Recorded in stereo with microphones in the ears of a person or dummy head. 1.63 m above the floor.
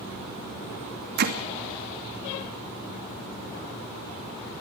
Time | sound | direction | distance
1.2 | hammering | 55° right (ahead or behind) | 2.5 m